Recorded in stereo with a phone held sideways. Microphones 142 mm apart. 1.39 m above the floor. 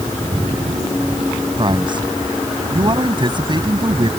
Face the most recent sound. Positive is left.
turn(degrees=-35)  # may be behind; listen again after turning